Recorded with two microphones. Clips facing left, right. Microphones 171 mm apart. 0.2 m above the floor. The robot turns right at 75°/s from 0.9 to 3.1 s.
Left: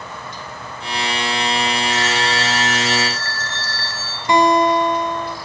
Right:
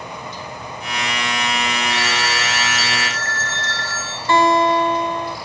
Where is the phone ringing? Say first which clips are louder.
Left 2 dB; 50° left, 2 m; by 4.2 s 140° left, 2 m.